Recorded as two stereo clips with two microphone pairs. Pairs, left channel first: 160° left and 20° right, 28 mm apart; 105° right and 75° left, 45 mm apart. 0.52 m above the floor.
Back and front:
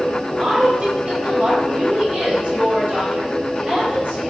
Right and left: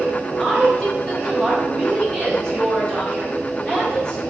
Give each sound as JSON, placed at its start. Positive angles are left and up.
{"t": 0.4, "sound": "a woman speaking", "azimuth_deg": -40, "distance_m": 1.0}